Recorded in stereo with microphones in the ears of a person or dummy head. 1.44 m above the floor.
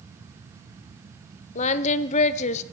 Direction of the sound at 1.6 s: 40° left (ahead or behind).